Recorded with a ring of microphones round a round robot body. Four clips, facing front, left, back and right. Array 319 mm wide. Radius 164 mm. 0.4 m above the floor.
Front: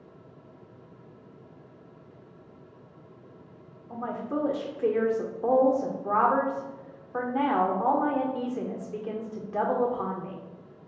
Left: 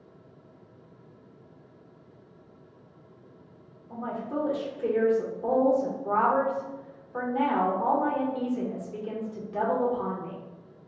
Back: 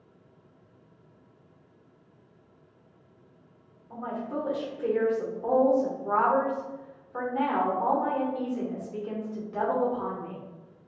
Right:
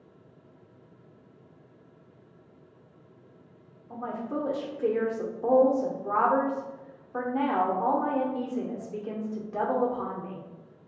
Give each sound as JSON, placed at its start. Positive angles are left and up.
{"t": 3.9, "sound": "a woman speaking", "azimuth_deg": -25, "distance_m": 0.9}